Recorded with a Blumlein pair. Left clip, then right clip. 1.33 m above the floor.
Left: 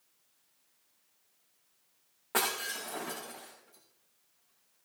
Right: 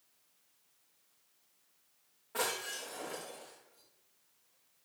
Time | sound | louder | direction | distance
2.3 | breaking glass | left 4 dB | 55° left | 7 m